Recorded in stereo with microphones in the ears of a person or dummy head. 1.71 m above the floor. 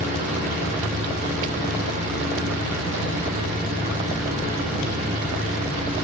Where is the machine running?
40° right (ahead or behind), 4 m.